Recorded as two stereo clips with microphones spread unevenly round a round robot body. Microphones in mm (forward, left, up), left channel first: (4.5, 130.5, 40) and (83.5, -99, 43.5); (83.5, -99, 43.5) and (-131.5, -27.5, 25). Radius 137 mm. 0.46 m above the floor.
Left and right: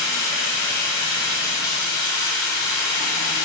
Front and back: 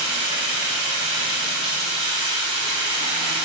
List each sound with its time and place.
0.0 s running water: 165° left, 1.0 m